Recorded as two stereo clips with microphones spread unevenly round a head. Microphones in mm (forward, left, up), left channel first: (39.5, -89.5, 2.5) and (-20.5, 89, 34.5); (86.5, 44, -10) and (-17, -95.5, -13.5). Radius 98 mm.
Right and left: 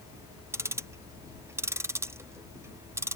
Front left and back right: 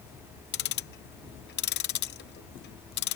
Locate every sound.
0.5 s ticking: 30° left